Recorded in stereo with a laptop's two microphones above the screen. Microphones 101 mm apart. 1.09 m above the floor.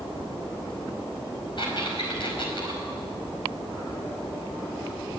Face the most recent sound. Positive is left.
turn(degrees=55)  # may be behind; listen again after turning